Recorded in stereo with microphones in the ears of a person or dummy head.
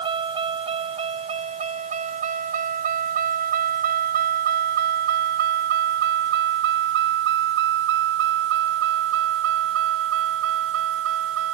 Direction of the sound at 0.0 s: 25° right (ahead or behind).